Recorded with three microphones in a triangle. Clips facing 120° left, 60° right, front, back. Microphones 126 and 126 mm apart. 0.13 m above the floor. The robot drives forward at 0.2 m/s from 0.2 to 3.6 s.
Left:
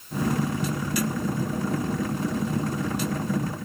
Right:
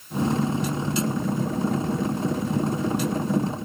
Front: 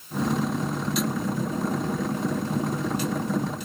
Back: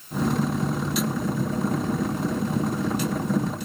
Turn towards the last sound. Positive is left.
No sound to turn to.